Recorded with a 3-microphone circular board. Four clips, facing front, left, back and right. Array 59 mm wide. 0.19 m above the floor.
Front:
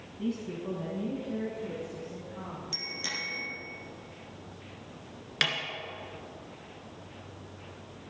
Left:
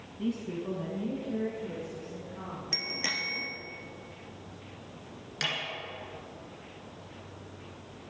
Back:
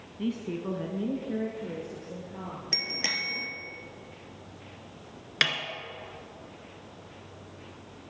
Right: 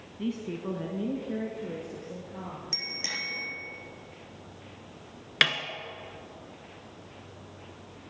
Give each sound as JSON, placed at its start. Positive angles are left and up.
{"t": 0.2, "sound": "a woman speaking", "azimuth_deg": -155, "distance_m": 1.2}
{"t": 2.7, "sound": "a bicycle bell", "azimuth_deg": 160, "distance_m": 3.5}
{"t": 5.4, "sound": "a snare drum", "azimuth_deg": -110, "distance_m": 1.7}